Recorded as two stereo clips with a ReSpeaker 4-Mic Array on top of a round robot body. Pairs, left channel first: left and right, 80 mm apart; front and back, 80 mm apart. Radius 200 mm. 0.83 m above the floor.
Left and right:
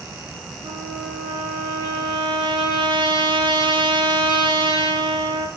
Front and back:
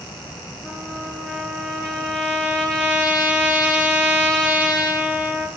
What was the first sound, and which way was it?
A trumpet, 80° right.